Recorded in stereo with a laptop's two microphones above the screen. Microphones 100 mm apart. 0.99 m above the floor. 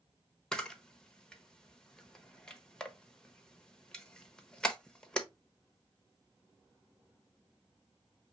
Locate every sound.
0.5 s a camera shutter: 5° left (ahead or behind), 1.0 m